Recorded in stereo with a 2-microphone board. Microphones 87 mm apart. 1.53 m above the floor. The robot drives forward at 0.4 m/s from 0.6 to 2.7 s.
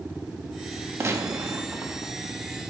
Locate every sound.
1.0 s a gunshot: 30° right (ahead or behind), 1.1 m; by 2.1 s 25° right (ahead or behind), 1.4 m